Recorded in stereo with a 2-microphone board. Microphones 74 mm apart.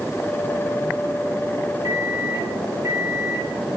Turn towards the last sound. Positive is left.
turn(degrees=-45)  # may be behind; listen again after turning